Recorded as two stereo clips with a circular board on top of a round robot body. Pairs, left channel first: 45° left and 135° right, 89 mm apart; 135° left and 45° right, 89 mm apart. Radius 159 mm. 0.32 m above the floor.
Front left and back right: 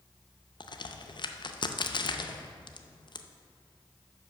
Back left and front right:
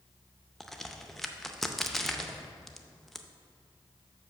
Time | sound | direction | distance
0.6 | a crack | 50° left | 0.7 m